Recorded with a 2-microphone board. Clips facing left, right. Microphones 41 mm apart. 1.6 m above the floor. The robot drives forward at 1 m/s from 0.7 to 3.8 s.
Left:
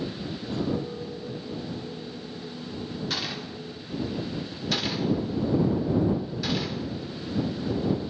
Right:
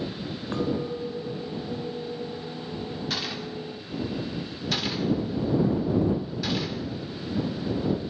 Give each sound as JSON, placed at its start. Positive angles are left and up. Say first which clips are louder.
{"t": 0.5, "sound": "a clink", "louder": "right 2 dB", "side_deg": -60, "distance_m": 4.5}
{"t": 3.1, "sound": "a gunshot", "louder": "right 1 dB", "side_deg": 0, "distance_m": 3.0}